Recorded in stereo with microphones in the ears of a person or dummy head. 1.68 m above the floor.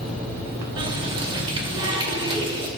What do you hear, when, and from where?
0.8 s a running tap: 30° right (ahead or behind), 2 m